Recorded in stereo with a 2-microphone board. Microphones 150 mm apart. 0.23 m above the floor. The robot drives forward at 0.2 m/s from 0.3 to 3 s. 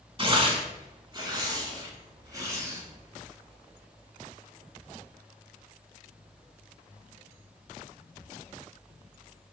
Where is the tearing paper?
35° right (ahead or behind), 0.7 m; by 2.8 s 20° right (ahead or behind), 1.1 m.